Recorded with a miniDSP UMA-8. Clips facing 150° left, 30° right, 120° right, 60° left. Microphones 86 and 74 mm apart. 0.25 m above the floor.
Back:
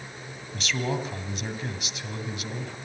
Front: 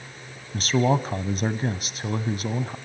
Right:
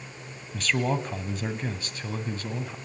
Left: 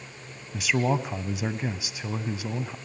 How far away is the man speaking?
About 1.8 m.